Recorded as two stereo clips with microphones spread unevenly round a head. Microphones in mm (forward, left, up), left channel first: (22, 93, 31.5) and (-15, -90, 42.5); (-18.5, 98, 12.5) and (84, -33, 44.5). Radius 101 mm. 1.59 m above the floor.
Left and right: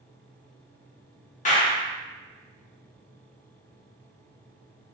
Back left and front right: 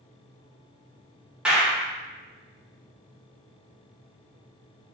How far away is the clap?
About 0.7 m.